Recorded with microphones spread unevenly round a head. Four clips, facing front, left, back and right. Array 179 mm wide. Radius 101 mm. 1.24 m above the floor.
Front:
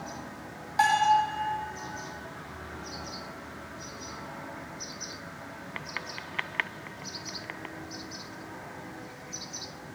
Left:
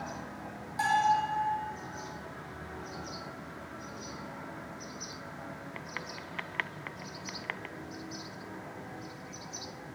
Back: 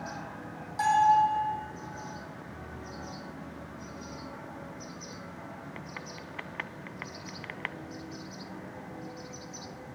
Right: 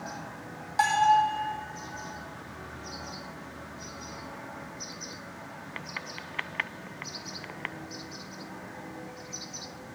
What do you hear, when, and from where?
0.8 s a bell: 50° right, 4.5 m